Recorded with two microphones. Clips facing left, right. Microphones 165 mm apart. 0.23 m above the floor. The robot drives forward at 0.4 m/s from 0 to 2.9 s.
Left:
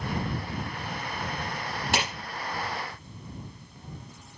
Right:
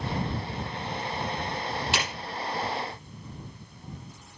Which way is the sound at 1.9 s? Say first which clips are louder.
Left 6 dB; 50° left (ahead or behind).